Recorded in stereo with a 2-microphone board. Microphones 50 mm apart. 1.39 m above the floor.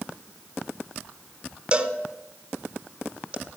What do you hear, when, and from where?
1.7 s a cowbell: 20° right (ahead or behind), 1.2 m